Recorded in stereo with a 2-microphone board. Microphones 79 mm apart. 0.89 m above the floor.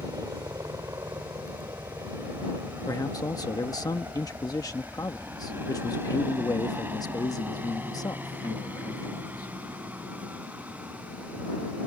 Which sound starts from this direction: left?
A man speaking, at 2.9 s.